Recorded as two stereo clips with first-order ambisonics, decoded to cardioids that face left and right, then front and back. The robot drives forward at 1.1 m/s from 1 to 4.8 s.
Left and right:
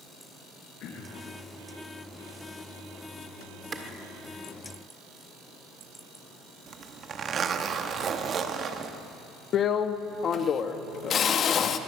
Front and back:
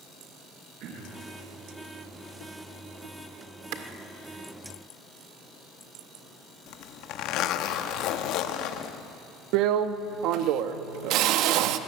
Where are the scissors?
I don't hear scissors.